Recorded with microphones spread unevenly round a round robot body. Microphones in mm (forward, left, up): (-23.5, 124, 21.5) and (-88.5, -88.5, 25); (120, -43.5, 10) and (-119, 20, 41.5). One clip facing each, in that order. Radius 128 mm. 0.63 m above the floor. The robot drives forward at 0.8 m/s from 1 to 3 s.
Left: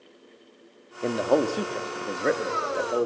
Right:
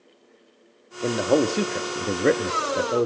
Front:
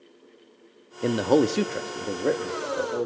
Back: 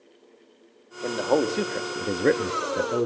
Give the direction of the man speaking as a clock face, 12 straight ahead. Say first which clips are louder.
Right 2 dB, front 3 dB; 1 o'clock.